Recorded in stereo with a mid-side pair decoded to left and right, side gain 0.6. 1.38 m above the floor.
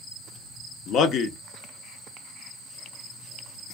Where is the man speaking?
60° left, 0.6 m.